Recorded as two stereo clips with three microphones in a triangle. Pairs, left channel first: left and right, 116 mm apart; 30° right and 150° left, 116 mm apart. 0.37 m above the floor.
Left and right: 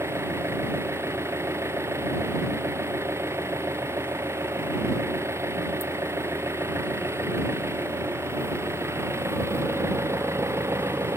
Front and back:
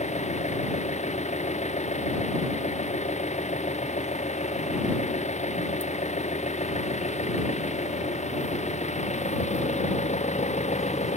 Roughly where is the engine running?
Ahead.